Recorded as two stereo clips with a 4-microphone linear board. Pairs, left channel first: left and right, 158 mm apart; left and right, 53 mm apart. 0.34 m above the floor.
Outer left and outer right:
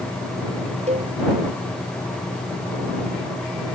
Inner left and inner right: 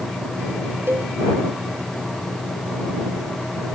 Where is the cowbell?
45° right (ahead or behind).